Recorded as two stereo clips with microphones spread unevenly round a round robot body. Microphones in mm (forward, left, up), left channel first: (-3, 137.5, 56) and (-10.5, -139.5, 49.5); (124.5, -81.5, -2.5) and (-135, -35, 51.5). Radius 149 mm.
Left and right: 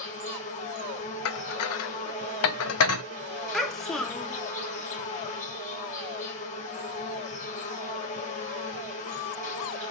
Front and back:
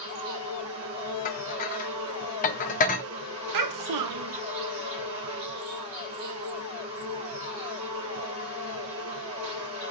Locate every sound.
0.0 s an insect: 145° left, 2 m
1.2 s dishes clattering: 50° left, 0.6 m
3.5 s a child speaking: straight behind, 0.8 m